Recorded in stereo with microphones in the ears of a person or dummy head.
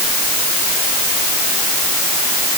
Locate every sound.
Only background noise.